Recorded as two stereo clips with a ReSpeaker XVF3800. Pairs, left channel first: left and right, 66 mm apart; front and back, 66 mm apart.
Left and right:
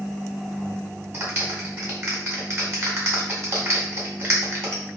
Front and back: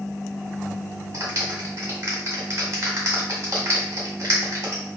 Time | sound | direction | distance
1.1 | a clap | 140° right | 1.6 m